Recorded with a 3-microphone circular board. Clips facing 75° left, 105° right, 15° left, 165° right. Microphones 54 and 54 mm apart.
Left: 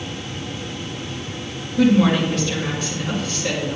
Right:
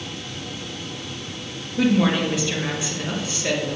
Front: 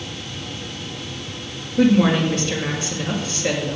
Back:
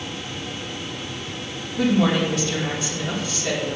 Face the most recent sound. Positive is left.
turn(degrees=-30)